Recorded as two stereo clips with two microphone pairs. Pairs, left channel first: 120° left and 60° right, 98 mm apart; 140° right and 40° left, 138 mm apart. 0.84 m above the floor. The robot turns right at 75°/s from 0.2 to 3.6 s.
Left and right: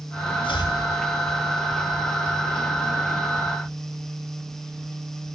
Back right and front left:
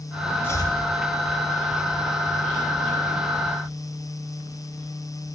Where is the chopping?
145° left, 3 m; by 0.8 s 165° left, 3 m.